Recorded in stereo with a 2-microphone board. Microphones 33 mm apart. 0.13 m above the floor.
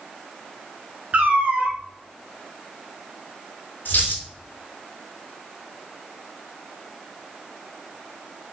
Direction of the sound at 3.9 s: 60° left (ahead or behind).